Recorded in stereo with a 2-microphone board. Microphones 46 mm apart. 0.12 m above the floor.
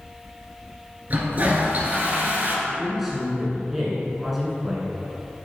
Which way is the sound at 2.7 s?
5° right (ahead or behind).